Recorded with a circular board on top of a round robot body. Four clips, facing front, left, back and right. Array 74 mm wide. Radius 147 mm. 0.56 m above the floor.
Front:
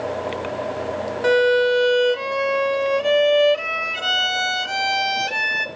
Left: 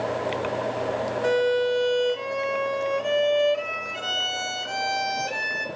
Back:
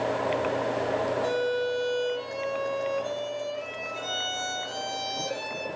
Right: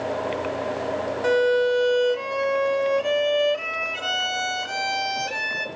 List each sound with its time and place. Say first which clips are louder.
1.2 s a violin: right 3 dB, front 11 dB; 10° right, 1.0 m